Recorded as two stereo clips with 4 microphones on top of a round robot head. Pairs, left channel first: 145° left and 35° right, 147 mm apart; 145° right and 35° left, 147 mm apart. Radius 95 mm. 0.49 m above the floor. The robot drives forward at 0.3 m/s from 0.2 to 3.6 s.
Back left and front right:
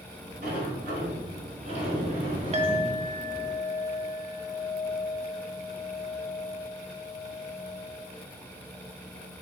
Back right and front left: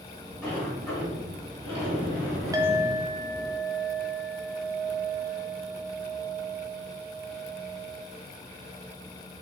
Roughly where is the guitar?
I don't hear a guitar.